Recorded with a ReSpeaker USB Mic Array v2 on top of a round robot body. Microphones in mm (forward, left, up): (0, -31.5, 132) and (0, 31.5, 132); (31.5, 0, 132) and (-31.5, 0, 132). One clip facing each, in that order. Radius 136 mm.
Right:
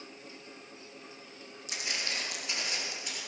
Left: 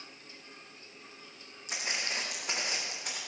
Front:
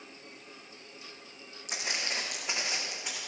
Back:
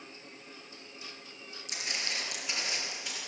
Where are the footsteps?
40° left, 3 m; by 3.2 s 70° left, 3 m.